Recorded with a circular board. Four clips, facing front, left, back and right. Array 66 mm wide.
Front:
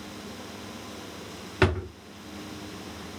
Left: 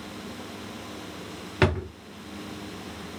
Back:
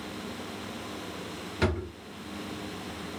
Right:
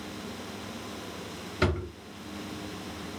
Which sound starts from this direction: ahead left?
A drawer, at 1.6 s.